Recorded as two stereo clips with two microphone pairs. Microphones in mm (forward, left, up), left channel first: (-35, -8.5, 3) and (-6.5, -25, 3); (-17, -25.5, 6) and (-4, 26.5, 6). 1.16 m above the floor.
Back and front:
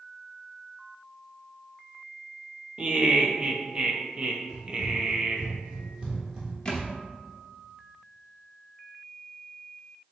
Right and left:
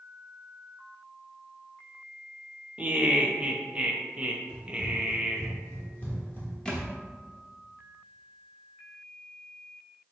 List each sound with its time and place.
2.8 s laughter: 15° left, 0.5 m
4.5 s running footsteps: straight ahead, 2.0 m; by 6.5 s 95° right, 1.4 m
6.7 s a thud: 170° right, 0.8 m